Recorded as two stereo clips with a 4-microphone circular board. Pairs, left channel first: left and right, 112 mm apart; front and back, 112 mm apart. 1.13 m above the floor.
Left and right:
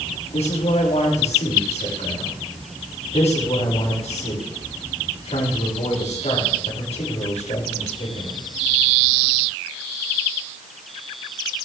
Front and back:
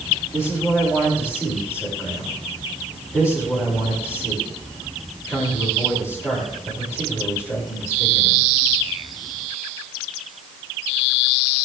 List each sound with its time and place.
0.3 s a man speaking: 65° left, 5.5 m